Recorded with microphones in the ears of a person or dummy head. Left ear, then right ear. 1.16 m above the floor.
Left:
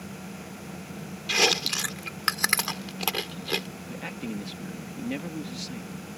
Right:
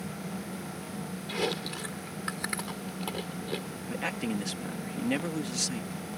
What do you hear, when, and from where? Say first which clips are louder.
1.3 s chewing: left 10 dB; 45° left (ahead or behind)
3.9 s a man speaking: right 4 dB; 45° right (ahead or behind)